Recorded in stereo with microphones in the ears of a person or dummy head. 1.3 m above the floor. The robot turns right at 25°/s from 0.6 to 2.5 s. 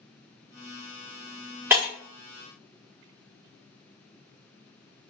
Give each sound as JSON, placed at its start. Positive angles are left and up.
{"t": 1.7, "sound": "breaking glass", "side_deg": -15, "distance_m": 1.7}